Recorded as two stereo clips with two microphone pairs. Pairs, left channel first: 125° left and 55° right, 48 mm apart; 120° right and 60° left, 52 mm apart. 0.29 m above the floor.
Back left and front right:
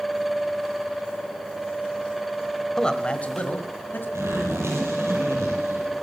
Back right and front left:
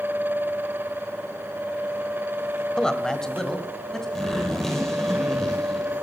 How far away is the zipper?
About 4 m.